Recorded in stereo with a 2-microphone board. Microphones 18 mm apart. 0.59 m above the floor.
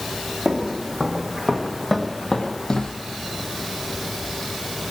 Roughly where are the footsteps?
Right.